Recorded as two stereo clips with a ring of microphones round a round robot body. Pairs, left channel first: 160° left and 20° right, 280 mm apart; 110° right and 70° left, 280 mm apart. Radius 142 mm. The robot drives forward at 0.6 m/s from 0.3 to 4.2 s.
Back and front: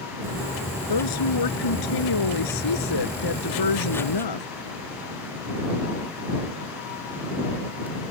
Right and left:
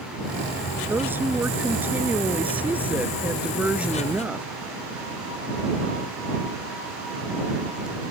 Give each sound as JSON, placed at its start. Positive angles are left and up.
{"t": 0.9, "sound": "a woman speaking", "azimuth_deg": 150}